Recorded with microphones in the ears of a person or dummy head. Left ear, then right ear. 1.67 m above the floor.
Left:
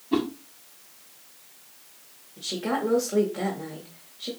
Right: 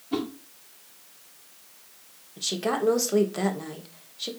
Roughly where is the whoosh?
Centre.